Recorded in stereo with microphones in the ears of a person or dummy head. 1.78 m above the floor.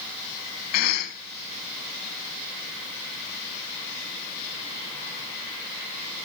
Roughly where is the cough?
Left.